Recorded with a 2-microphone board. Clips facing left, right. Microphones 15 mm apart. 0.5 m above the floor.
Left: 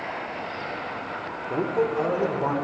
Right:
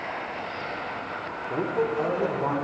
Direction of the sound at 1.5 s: 35° left (ahead or behind).